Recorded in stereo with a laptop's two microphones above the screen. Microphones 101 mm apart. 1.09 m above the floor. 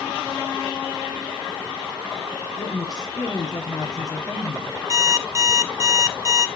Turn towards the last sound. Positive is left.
turn(degrees=-30)  # may be behind; listen again after turning